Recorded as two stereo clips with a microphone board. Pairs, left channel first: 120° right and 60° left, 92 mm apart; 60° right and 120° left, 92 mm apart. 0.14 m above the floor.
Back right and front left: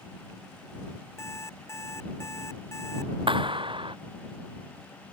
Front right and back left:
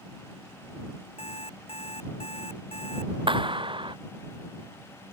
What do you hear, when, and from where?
1.2 s an alarm clock: 60° right
3.3 s a clap: 90° left